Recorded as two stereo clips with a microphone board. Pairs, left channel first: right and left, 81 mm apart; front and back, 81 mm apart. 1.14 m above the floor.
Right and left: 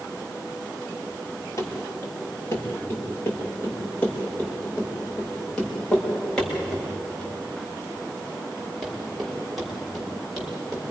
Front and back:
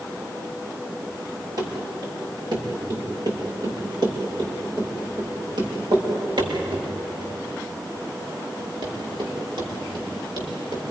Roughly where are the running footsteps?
Behind right.